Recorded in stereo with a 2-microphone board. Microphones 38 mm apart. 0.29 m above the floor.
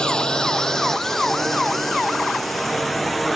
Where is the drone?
20° left (ahead or behind); by 3.4 s centre (ahead or behind).